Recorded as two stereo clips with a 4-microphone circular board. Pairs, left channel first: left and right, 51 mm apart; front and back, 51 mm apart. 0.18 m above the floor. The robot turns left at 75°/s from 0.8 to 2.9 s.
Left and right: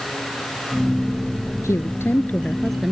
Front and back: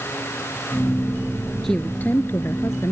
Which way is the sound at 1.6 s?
85° left.